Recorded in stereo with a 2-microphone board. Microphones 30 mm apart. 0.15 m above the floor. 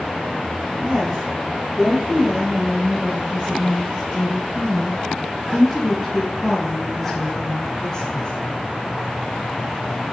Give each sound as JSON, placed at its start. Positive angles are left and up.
{"t": 0.8, "sound": "a woman speaking", "side_deg": -55, "distance_m": 4.5}